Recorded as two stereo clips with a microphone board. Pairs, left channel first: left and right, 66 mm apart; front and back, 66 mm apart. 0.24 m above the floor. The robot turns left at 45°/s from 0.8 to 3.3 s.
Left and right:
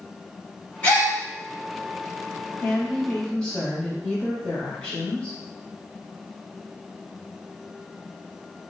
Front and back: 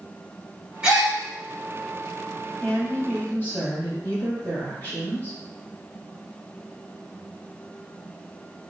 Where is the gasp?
125° left, 1.0 m; by 1.1 s 115° left, 1.0 m.